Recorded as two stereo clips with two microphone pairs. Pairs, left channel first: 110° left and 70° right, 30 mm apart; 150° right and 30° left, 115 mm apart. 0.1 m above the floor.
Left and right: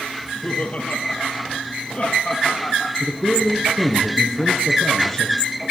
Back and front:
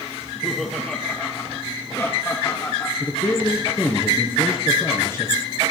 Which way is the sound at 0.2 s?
110° left.